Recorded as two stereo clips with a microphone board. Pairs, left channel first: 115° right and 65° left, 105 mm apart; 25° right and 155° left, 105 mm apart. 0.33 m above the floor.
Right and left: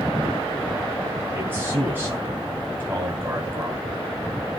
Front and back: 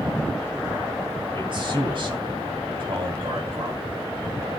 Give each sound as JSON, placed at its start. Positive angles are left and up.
{"t": 1.3, "sound": "a man speaking", "azimuth_deg": 130, "distance_m": 2.5}